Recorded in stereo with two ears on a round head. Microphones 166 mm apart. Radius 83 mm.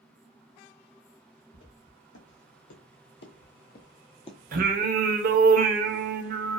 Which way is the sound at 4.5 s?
50° right (ahead or behind).